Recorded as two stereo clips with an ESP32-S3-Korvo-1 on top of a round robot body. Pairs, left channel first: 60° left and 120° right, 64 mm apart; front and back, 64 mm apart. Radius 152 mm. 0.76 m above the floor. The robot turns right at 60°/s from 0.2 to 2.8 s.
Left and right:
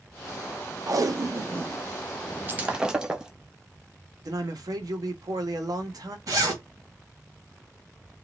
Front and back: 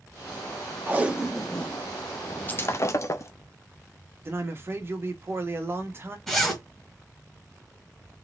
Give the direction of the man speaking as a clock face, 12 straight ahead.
4 o'clock.